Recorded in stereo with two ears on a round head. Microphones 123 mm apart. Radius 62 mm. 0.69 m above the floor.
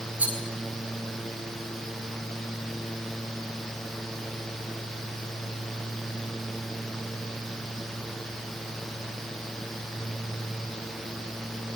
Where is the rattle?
10° right (ahead or behind), 8 m.